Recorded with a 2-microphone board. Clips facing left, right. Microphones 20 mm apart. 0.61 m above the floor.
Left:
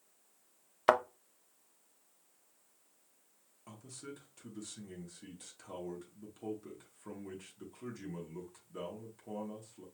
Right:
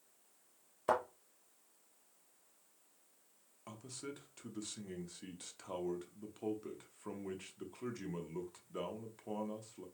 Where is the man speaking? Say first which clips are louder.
Right 1 dB; 25° right (ahead or behind), 0.9 m.